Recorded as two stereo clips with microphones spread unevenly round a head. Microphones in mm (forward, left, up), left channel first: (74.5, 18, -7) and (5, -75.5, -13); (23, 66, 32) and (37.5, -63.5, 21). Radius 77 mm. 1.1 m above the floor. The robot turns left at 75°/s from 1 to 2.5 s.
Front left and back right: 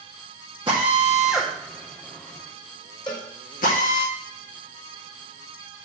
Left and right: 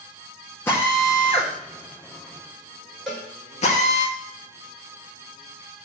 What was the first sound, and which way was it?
A drill, 175° left.